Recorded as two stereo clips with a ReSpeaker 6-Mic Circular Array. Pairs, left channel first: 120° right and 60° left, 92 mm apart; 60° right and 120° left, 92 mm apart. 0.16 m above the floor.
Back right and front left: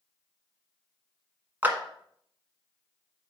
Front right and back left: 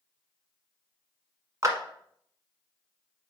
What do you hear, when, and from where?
1.6 s a clap: 115° left, 1.2 m